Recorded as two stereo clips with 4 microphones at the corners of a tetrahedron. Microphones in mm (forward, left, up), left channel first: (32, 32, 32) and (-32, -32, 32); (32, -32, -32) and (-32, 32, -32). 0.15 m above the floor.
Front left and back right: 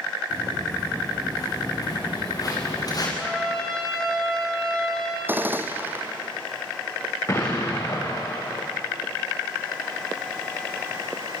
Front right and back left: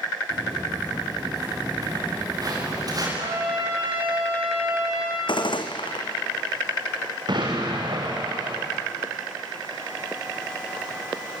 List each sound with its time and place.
0.3 s footsteps: 90° left, 9 m
3.2 s a trumpet: 130° left, 6.5 m
5.3 s a gunshot: 70° right, 1.6 m
7.3 s an explosion: 100° left, 5.5 m